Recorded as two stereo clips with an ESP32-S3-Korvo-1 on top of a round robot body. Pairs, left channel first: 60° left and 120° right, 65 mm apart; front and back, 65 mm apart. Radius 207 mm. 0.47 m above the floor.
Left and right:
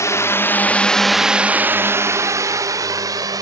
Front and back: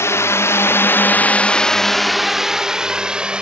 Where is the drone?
35° left; by 3.4 s 105° right.